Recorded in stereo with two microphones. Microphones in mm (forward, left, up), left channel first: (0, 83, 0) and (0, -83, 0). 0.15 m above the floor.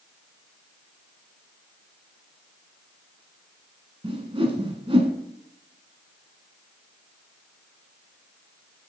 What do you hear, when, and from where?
4.0 s a whoosh: 35° right (ahead or behind), 0.9 m